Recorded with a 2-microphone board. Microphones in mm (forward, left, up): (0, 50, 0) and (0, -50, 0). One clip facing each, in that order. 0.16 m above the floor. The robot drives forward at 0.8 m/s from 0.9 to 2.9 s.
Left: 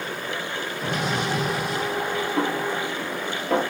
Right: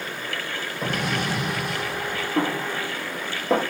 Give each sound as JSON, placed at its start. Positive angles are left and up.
{"t": 0.8, "sound": "an explosion", "side_deg": -55, "distance_m": 4.0}
{"t": 2.4, "sound": "a snare drum", "side_deg": -30, "distance_m": 3.0}